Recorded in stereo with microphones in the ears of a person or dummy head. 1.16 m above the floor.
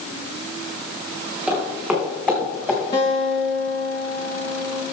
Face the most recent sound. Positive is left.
turn(degrees=35)  # may be behind; listen again after turning